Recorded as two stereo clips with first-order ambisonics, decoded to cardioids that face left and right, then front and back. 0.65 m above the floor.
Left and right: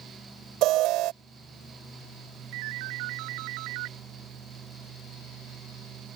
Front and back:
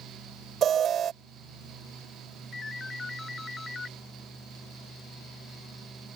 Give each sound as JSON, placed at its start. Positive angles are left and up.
{"t": 0.6, "sound": "an alarm", "azimuth_deg": -120}
{"t": 2.5, "sound": "a ringtone", "azimuth_deg": -75}